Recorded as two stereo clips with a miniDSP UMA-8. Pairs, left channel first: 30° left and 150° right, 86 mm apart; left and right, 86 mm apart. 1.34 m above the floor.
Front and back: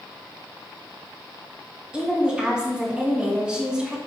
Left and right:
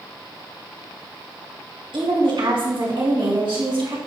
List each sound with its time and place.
1.9 s a woman speaking: 70° right, 2.5 m